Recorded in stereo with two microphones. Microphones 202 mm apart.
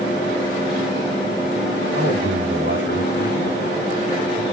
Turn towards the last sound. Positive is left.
turn(degrees=-70)  # may be behind; listen again after turning